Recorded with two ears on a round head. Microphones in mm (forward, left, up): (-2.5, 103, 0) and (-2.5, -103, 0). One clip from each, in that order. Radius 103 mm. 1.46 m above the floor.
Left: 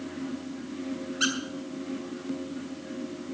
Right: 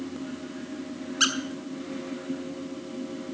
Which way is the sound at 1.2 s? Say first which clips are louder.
Right 3 dB; 40° right (ahead or behind).